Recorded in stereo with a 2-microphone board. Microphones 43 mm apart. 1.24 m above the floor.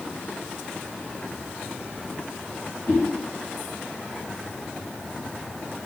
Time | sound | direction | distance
2.9 | a whoosh | 50° left (ahead or behind) | 1.9 m